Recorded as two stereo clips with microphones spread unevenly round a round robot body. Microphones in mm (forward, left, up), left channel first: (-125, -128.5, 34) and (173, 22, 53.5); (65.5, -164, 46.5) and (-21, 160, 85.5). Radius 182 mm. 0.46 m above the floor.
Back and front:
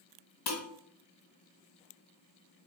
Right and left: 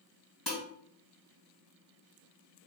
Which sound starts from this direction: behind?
Dishes clattering, at 0.5 s.